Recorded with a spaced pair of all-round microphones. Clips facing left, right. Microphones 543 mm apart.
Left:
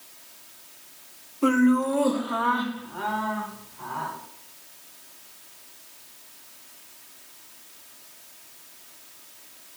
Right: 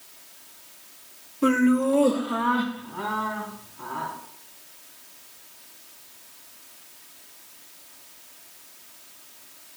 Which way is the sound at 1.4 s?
40° right (ahead or behind).